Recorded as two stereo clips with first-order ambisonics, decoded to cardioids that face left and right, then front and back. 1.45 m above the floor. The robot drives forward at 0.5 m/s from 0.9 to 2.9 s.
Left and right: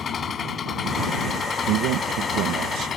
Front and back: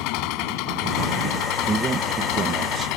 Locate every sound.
0.0 s an engine running: 25° left
1.7 s a man speaking: 110° right; by 2.9 s 125° right